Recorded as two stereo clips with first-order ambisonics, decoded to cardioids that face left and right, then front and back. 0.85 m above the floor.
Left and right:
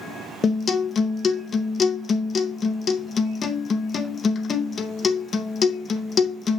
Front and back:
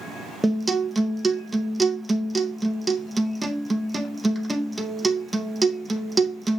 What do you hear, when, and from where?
0.4 s a guitar: 110° left, 0.7 m